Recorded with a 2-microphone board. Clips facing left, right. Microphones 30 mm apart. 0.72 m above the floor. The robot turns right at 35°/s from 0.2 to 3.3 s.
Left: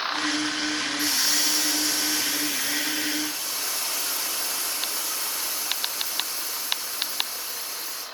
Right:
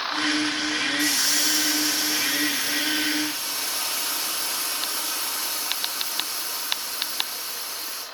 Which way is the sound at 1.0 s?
160° left.